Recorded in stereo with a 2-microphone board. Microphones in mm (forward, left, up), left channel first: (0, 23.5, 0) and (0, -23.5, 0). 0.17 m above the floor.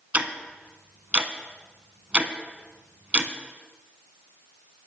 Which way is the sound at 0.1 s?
35° right (ahead or behind).